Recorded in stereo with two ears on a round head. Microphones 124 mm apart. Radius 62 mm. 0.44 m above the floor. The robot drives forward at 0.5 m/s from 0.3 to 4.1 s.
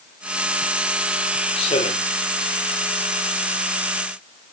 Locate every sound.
1.6 s a man speaking: 45° left (ahead or behind), 9.5 m